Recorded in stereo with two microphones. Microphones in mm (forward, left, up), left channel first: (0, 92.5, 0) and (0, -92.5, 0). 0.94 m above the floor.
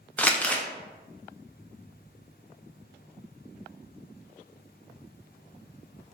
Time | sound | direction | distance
0.2 | crumpling | 10° left (ahead or behind) | 0.5 m